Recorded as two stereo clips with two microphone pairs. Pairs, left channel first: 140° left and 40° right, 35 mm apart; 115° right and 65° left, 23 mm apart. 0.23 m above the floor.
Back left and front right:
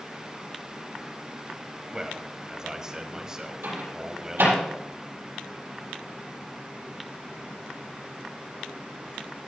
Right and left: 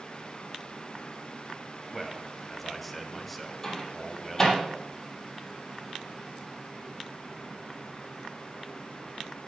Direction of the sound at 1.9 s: 45° right.